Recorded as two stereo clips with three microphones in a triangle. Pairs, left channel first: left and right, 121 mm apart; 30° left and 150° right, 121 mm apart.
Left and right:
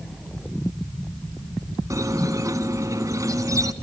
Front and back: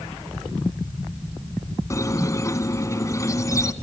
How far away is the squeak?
About 1.6 m.